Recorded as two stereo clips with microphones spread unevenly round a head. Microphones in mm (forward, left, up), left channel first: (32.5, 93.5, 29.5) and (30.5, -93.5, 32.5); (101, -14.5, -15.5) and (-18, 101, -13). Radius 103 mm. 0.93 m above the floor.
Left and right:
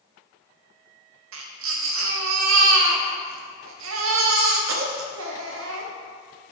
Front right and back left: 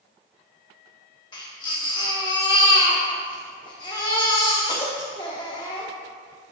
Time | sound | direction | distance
1.3 | a baby crying | 115° right | 1.1 m